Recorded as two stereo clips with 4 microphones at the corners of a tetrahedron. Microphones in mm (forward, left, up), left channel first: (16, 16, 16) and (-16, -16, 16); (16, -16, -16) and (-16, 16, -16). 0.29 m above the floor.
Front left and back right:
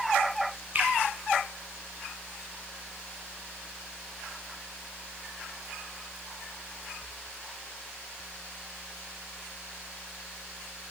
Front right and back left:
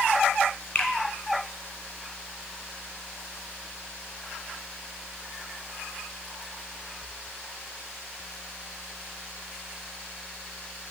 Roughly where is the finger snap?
Right.